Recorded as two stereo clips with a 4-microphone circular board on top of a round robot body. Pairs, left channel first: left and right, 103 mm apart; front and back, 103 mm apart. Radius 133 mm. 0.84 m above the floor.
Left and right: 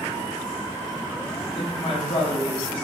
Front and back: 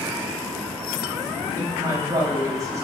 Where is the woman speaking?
125° left, 5 m.